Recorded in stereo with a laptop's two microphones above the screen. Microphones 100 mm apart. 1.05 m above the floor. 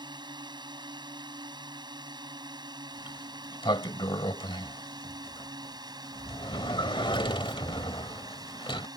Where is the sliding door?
55° left (ahead or behind).